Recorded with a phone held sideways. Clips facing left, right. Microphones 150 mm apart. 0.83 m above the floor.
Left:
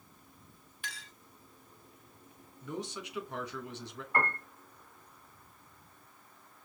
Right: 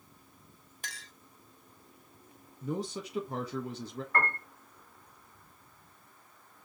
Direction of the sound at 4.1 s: 15° left (ahead or behind).